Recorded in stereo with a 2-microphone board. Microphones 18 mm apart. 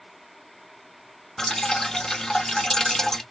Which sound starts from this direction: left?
Dripping, at 1.4 s.